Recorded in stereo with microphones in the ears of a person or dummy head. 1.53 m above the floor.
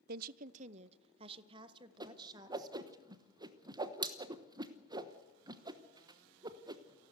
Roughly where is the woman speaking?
Right.